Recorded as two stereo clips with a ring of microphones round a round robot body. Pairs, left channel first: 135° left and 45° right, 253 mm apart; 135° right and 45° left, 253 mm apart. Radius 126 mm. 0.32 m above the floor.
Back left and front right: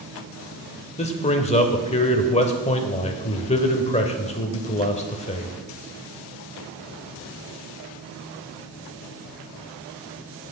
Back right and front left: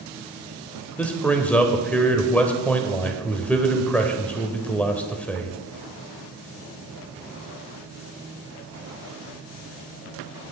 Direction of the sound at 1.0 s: 150° left.